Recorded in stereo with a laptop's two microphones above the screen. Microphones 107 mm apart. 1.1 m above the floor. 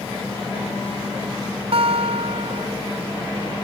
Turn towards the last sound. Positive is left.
turn(degrees=-65)  # may be behind; listen again after turning